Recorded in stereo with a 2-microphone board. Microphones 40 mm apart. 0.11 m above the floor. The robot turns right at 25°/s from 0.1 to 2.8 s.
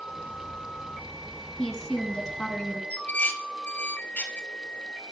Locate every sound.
1.6 s a woman speaking: straight ahead, 2 m; by 2.8 s 30° left, 2 m
2.9 s dishes clattering: 40° left (ahead or behind), 1.2 m